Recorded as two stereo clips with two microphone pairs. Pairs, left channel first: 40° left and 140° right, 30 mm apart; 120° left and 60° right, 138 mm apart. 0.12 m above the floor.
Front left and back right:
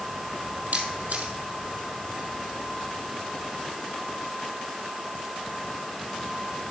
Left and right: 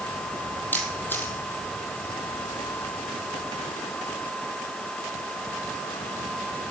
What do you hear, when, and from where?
0.7 s a camera shutter: 165° right, 1.8 m